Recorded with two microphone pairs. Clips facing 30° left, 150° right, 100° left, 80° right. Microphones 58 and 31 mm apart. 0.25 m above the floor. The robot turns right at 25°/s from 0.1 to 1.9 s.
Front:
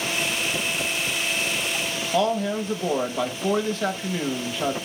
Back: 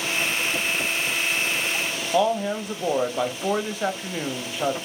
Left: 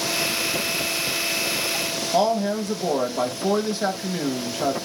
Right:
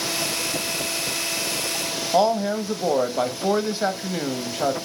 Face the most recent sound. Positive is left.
turn(degrees=-95)